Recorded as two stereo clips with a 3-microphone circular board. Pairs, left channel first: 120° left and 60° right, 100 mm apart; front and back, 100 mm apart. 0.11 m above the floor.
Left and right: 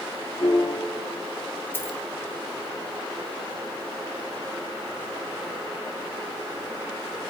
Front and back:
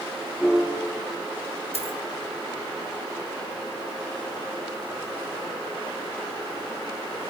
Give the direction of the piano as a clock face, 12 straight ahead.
9 o'clock.